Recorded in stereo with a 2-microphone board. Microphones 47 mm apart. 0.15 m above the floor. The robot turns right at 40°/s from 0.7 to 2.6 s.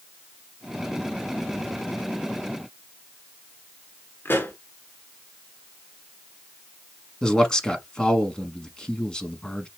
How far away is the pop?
About 1.2 m.